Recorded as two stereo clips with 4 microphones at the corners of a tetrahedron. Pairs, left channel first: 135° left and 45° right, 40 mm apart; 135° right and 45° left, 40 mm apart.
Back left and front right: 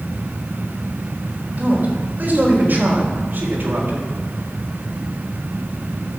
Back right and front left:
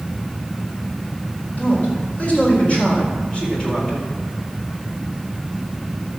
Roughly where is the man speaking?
Right.